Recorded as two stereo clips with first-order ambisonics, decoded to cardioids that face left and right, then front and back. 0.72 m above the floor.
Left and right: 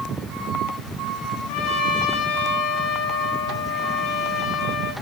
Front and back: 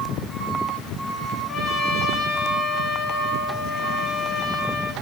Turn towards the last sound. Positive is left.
turn(degrees=65)